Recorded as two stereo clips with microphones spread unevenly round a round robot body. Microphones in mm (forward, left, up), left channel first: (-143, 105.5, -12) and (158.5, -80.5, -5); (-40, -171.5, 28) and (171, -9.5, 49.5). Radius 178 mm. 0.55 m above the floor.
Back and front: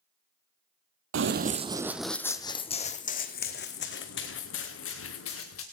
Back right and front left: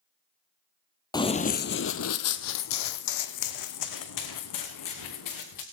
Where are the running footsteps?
65° right, 0.7 m; by 5.6 s 155° right, 2.5 m.